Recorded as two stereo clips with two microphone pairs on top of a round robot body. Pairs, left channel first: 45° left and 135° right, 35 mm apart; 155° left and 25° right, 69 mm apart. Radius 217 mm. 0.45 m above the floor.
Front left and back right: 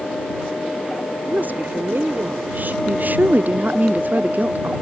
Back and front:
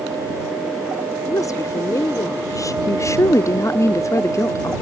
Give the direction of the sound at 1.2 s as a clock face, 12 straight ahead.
6 o'clock.